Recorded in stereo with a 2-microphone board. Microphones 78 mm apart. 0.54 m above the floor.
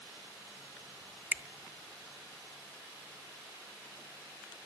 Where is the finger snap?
25° right (ahead or behind), 0.5 m.